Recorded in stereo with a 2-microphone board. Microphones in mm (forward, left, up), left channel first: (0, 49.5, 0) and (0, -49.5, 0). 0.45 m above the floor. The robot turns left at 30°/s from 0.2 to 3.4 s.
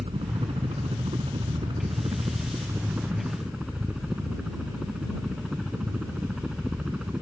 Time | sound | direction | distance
0.0 | a helicopter | 75° right | ?